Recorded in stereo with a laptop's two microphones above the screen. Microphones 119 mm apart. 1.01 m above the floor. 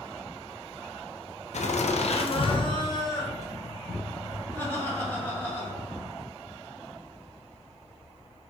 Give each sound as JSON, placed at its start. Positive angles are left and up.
{"t": 1.5, "sound": "laughter", "side_deg": 70, "distance_m": 0.7}